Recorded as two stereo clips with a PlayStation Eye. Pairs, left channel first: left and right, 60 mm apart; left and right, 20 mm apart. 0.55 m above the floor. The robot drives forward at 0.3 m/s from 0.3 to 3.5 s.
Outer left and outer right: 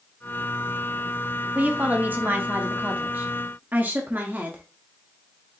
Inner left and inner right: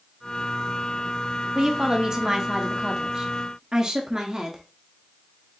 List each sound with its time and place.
1.6 s a woman speaking: 25° right (ahead or behind), 0.8 m; by 4.6 s 30° right (ahead or behind), 0.8 m